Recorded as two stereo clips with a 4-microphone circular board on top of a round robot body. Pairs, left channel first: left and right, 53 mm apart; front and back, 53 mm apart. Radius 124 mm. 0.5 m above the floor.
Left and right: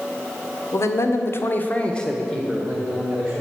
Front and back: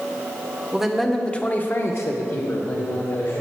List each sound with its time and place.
0.7 s a man speaking: 100° left, 1.6 m; by 3.4 s 15° right, 3 m